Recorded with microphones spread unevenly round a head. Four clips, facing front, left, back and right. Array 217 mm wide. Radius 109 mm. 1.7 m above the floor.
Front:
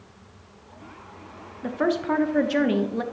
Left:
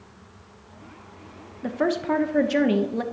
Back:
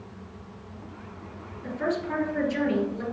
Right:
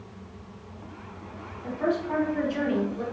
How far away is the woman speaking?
About 1.1 m.